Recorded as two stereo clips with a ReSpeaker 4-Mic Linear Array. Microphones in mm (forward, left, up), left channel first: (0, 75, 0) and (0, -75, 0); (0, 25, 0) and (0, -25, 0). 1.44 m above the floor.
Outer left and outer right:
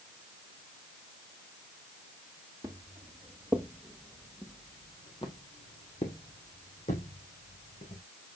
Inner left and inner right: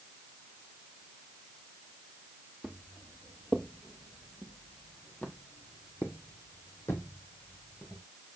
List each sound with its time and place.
2.6 s footsteps: 25° right (ahead or behind), 1.8 m; by 8.0 s 65° left (ahead or behind), 3 m